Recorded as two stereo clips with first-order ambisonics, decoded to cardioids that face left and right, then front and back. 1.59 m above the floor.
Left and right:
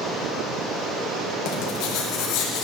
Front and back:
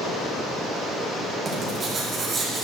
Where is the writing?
115° left, 2 m.